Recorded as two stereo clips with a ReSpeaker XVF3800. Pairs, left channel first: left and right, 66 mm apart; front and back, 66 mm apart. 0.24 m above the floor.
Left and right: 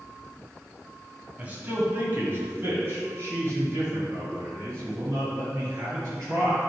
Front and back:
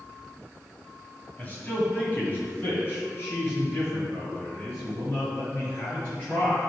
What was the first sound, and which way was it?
A man speaking, 45° right.